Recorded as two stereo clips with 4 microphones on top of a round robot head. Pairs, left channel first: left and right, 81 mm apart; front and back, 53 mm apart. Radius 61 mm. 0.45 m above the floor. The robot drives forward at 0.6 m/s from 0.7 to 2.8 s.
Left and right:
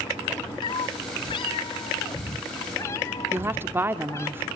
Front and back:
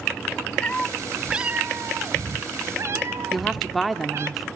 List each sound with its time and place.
0.6 s a cat meowing: 70° left, 0.6 m; by 4.3 s 150° left, 1.2 m
3.3 s a woman speaking: 90° right, 1.1 m